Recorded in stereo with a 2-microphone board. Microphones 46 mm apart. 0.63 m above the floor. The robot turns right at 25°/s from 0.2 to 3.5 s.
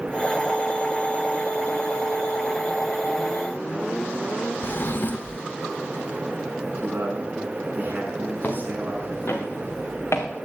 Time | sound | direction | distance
4.6 | a drawer | 45° left (ahead or behind) | 0.7 m
6.8 | a man speaking | 40° right (ahead or behind) | 6 m
8.4 | footsteps | 40° left (ahead or behind) | 4.5 m